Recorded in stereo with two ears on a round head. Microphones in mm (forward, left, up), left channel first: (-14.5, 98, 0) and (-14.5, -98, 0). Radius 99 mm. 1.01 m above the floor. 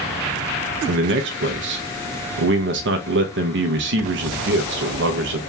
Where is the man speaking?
55° right (ahead or behind), 0.9 m.